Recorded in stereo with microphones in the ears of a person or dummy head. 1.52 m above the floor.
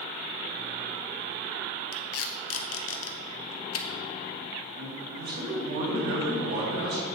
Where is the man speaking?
60° right (ahead or behind), 2.5 m.